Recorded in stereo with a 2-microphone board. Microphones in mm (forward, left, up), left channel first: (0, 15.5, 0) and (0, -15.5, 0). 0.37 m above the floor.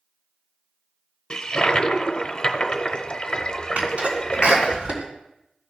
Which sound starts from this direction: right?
A sneeze, at 3.8 s.